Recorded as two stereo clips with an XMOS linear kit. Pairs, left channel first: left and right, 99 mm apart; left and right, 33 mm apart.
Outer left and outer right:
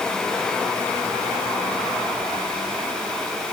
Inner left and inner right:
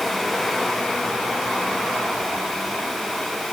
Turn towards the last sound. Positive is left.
No sound to turn to.